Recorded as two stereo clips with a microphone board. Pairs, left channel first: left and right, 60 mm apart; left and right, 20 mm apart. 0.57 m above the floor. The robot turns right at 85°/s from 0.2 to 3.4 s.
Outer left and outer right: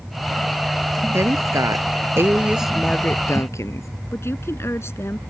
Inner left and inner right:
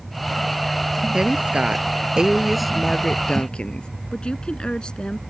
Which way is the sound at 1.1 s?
135° right.